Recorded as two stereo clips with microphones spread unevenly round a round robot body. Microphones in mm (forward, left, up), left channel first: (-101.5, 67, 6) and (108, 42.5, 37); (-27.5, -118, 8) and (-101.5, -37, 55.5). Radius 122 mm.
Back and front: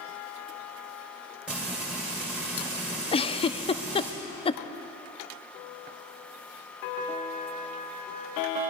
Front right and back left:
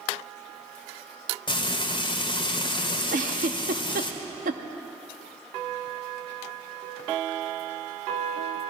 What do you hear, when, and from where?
1.5 s frying: 95° right, 1.8 m
3.1 s a giggle: 110° left, 0.5 m